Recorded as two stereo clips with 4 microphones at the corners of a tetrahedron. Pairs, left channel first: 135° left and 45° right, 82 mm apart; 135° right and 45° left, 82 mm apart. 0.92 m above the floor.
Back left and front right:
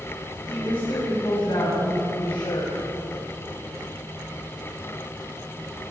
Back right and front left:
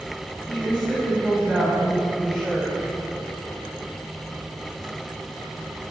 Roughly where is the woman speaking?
Behind left.